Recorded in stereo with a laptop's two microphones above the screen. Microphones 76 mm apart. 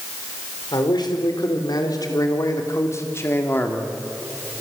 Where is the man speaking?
75° left (ahead or behind), 5 m; by 4.0 s 20° left (ahead or behind), 3.5 m.